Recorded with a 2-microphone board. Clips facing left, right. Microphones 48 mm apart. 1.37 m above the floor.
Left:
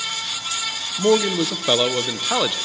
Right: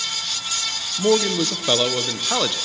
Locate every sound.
1.0 s a man speaking: 10° left (ahead or behind), 0.7 m